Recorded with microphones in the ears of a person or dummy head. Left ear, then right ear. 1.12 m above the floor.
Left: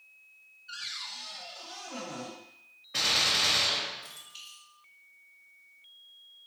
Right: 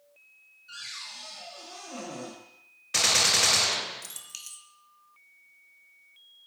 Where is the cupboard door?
5° left (ahead or behind), 1.2 m.